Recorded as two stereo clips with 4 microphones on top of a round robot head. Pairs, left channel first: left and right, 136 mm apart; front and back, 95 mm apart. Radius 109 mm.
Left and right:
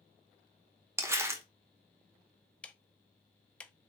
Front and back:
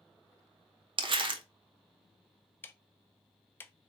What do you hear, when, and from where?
1.0 s crumpling: 160° right, 0.6 m
2.6 s ticking: 20° left, 0.5 m